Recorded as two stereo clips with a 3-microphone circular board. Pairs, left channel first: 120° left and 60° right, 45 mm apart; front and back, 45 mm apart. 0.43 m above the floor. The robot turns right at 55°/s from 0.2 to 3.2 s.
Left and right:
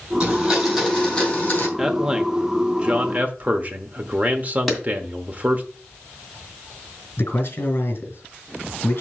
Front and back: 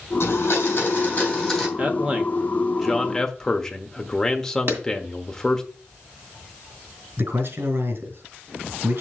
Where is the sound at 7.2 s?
155° left, 3 m.